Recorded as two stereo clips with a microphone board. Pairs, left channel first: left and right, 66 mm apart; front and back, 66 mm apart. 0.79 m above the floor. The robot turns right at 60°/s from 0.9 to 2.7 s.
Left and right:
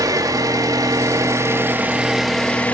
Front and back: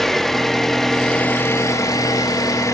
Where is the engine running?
85° right, 1.4 m; by 2.7 s 25° left, 1.4 m.